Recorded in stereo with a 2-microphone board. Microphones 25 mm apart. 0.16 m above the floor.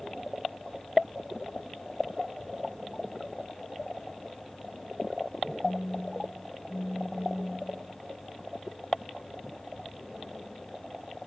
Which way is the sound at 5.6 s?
55° left (ahead or behind).